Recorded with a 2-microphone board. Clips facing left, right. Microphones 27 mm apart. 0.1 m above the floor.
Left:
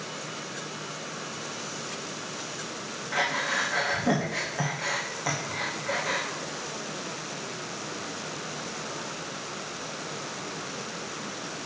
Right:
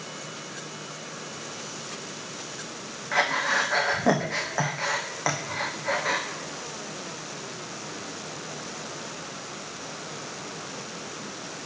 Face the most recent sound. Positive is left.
turn(degrees=-75)  # may be behind; listen again after turning